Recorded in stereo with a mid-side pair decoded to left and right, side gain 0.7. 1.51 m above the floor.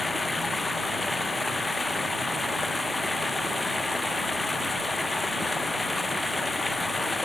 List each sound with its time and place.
0.0 s running water: 10° left